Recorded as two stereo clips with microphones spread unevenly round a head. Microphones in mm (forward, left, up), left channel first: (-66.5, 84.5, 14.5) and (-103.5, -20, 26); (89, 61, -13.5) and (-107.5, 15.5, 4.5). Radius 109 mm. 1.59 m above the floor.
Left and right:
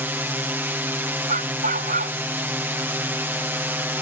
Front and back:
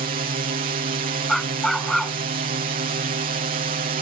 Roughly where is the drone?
Behind.